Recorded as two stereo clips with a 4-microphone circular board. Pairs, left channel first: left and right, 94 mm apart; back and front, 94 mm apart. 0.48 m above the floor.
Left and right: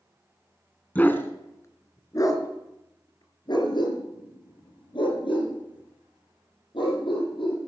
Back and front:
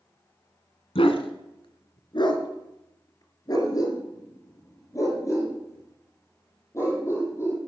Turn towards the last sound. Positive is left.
turn(degrees=115)